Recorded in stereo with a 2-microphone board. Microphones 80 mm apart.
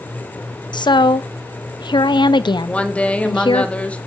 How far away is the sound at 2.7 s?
About 1.5 m.